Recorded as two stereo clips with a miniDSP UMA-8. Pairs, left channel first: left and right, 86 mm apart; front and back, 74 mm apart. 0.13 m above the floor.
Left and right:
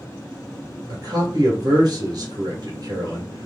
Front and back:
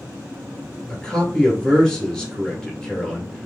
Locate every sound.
0.9 s a man speaking: 80° right, 1.8 m